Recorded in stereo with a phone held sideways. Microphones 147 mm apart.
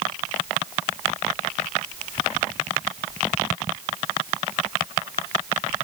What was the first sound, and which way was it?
Only background noise.